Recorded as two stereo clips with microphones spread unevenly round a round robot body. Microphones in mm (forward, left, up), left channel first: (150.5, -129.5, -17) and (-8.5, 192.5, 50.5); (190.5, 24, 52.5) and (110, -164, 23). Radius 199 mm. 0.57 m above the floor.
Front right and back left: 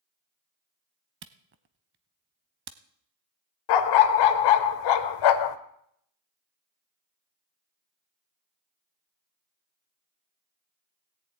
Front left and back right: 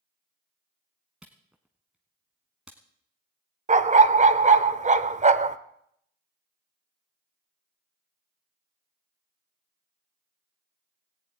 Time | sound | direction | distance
1.2 | a camera shutter | 150° left | 0.5 m
3.7 | a dog barking | 55° right | 0.9 m